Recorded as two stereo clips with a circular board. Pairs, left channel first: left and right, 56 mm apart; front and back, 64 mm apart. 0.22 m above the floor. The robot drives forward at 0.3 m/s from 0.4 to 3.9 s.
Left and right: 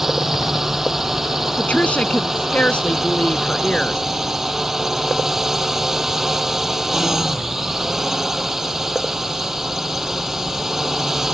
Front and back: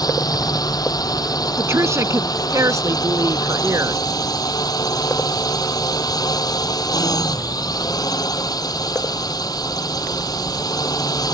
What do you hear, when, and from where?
0.0 s a drone: 5° right
1.6 s a woman speaking: 150° left; by 4.0 s 160° left